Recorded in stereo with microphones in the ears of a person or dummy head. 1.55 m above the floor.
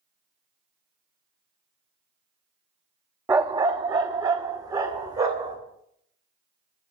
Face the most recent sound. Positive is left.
turn(degrees=-20)  # may be behind; listen again after turning